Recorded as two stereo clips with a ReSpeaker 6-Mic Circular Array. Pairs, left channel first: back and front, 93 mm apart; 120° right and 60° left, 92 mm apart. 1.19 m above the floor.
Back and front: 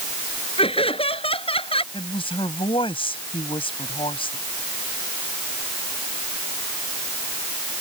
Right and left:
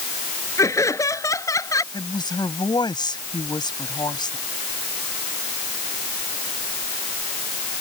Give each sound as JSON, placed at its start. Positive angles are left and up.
{"t": 0.6, "sound": "laughter", "azimuth_deg": -175}
{"t": 1.9, "sound": "a woman speaking", "azimuth_deg": -160}